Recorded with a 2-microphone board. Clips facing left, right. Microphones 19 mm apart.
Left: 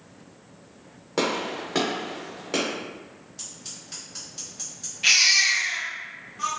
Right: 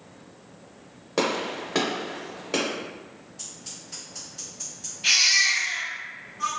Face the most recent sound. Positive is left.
turn(degrees=65)  # may be behind; listen again after turning